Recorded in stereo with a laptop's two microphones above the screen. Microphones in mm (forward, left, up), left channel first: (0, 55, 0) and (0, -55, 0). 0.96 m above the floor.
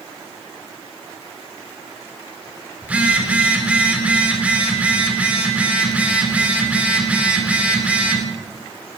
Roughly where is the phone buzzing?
Centre.